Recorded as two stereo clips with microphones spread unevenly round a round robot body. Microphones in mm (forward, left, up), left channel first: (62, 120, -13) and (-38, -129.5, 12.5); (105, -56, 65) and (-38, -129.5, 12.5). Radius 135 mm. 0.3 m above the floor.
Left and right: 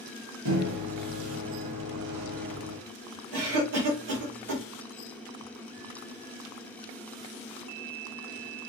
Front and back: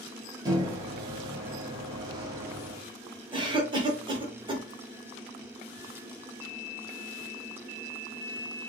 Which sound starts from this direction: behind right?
A cough, at 3.3 s.